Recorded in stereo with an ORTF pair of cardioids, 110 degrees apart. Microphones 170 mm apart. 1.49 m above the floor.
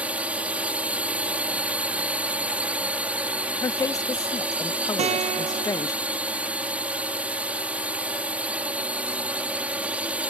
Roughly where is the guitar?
Ahead right.